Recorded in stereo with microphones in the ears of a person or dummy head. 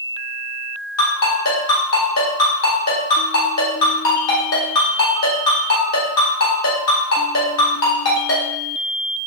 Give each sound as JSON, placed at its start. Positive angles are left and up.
{"t": 1.0, "sound": "a ringtone", "side_deg": 80, "distance_m": 2.0}